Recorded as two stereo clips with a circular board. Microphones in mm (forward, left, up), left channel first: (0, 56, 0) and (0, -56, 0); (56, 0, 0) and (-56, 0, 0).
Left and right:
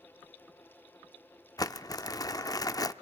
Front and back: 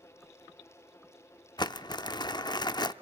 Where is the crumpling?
40° left, 0.5 m.